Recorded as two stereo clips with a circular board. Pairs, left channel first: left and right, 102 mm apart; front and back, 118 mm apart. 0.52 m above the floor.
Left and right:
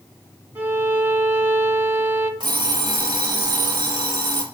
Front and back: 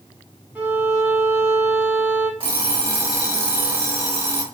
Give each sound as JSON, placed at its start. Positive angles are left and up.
{"t": 0.6, "sound": "a violin", "azimuth_deg": -125, "distance_m": 0.7}
{"t": 2.4, "sound": "an alarm clock", "azimuth_deg": -135, "distance_m": 1.0}